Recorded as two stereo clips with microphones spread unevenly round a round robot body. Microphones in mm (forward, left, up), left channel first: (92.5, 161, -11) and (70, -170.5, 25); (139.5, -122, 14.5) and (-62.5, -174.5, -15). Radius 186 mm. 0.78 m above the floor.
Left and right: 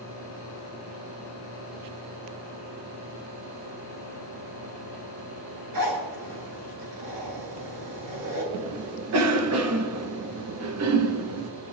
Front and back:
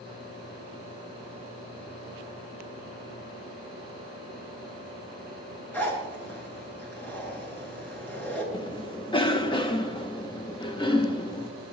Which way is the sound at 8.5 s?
55° right.